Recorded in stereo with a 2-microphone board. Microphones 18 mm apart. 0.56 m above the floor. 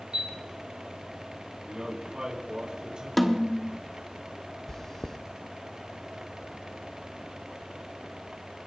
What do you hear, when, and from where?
0.1 s a chime: 50° right (ahead or behind), 9 m
1.6 s a man speaking: 50° right (ahead or behind), 5.5 m
3.2 s a snare drum: 10° left (ahead or behind), 1.2 m
4.7 s chewing: 25° left (ahead or behind), 0.9 m